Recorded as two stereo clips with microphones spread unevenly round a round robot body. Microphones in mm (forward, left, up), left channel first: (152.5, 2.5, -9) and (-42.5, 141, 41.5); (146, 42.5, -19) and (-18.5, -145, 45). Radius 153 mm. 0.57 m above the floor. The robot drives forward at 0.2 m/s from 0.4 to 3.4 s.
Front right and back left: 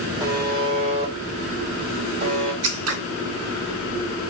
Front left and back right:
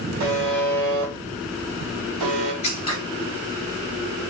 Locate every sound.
0.2 s a buzzer: 135° right, 0.9 m; by 2.5 s 150° right, 1.2 m
2.6 s scissors: 125° left, 0.6 m